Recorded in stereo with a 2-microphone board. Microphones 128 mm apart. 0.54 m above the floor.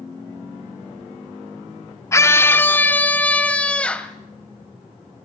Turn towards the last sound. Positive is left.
turn(degrees=10)  # may be behind; listen again after turning